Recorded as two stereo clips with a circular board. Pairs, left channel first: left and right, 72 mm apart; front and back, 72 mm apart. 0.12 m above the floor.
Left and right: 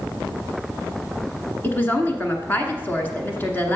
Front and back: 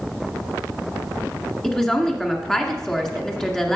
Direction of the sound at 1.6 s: 75° left.